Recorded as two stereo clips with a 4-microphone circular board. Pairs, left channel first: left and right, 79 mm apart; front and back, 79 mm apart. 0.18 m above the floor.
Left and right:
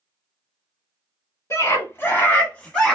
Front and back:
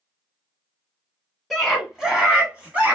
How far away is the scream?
About 1.5 m.